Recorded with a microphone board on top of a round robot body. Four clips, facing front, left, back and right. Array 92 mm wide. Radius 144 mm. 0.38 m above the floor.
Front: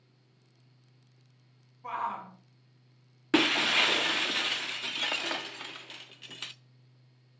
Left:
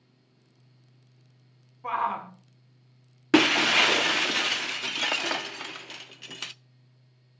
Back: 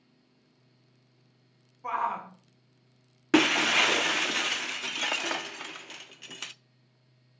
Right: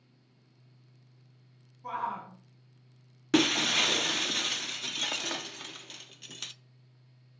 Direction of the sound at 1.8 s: 115° left.